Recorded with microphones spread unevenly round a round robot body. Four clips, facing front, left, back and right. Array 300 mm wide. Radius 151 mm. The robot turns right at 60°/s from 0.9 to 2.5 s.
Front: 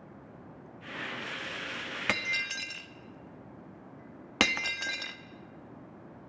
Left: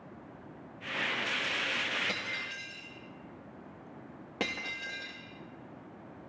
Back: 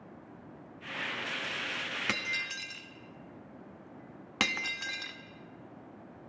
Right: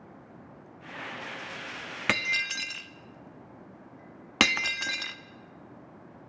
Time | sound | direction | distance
2.1 | breaking glass | 110° right | 1.0 m